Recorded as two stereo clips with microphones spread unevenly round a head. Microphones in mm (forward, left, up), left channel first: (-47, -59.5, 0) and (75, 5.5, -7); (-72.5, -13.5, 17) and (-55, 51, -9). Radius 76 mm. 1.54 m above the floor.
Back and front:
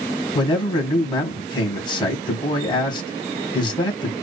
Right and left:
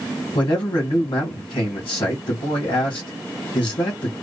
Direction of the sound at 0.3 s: 95° right.